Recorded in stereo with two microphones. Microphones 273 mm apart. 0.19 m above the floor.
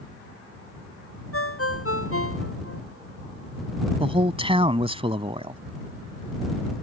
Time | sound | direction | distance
1.3 | a ringtone | 55° left (ahead or behind) | ?
4.0 | a man speaking | 20° right (ahead or behind) | ?